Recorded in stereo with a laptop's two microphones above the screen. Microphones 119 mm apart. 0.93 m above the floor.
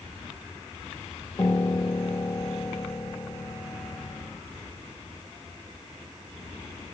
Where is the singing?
No singing in this recording.